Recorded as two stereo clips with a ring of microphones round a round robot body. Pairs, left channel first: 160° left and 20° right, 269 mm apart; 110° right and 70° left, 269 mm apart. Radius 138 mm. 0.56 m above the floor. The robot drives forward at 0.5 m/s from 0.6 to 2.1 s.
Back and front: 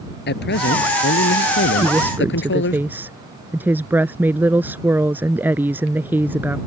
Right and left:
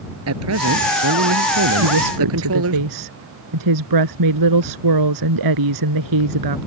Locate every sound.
0.3 s a man speaking: 105° left
1.8 s a woman speaking: 60° left